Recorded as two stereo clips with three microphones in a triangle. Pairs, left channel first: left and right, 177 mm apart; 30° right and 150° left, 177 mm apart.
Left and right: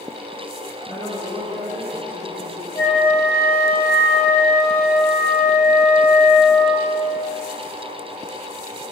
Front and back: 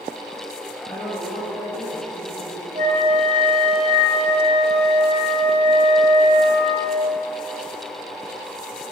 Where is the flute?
100° left, 2 m.